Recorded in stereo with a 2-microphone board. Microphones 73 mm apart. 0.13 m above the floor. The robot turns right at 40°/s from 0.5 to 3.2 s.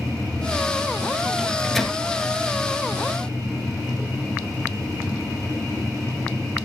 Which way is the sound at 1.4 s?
5° right (ahead or behind).